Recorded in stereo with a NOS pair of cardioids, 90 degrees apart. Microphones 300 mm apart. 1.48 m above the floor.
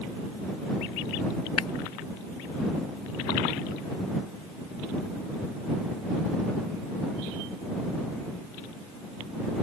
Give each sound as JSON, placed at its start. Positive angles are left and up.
{"t": 1.6, "sound": "breaking glass", "azimuth_deg": 55}